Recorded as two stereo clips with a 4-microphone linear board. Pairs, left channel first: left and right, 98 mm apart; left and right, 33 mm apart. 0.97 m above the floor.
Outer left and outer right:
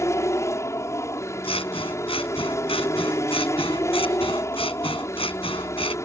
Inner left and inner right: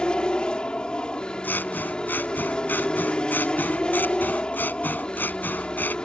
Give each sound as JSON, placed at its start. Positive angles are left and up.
{"t": 0.0, "sound": "an aircraft", "side_deg": 30}
{"t": 1.4, "sound": "scissors", "side_deg": 80}